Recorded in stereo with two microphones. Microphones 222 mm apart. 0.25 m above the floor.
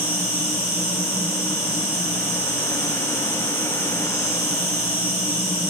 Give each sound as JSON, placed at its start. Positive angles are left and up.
{"t": 0.0, "sound": "an insect", "side_deg": -45, "distance_m": 2.5}